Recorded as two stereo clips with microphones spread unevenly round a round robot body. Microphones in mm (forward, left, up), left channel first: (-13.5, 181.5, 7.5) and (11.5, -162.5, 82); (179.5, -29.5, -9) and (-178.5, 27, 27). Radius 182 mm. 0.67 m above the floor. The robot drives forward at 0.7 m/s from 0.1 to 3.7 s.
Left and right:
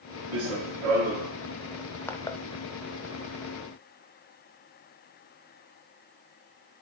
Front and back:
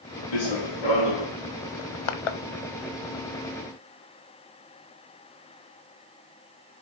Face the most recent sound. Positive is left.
turn(degrees=170)